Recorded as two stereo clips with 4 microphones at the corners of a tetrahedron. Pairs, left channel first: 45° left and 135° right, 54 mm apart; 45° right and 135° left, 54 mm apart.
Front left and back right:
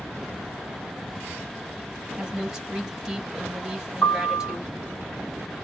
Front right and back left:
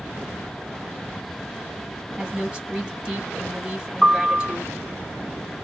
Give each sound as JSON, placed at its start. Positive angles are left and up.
{"t": 2.2, "sound": "a woman speaking", "azimuth_deg": 170, "distance_m": 1.2}
{"t": 4.0, "sound": "a piano", "azimuth_deg": 70, "distance_m": 1.6}